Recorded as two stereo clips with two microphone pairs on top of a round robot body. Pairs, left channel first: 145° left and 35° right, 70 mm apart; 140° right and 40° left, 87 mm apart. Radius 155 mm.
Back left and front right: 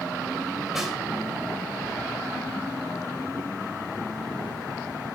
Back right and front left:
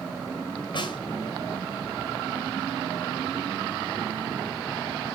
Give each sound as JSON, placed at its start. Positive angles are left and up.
{"t": 0.7, "sound": "a snare drum", "azimuth_deg": -120, "distance_m": 2.5}